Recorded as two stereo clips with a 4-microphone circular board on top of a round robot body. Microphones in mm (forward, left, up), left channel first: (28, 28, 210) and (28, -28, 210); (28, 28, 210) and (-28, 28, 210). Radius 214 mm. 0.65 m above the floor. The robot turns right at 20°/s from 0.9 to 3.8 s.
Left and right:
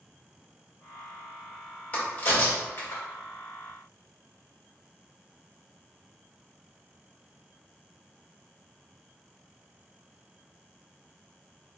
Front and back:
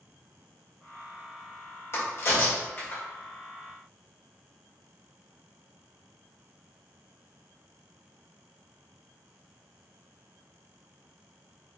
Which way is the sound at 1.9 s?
35° left.